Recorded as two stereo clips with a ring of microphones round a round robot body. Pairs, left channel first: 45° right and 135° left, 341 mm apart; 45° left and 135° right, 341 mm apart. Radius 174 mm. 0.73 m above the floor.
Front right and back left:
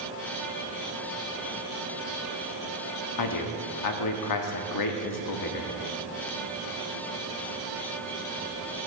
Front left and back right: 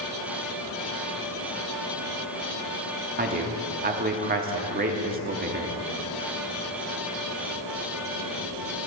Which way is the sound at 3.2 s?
70° right.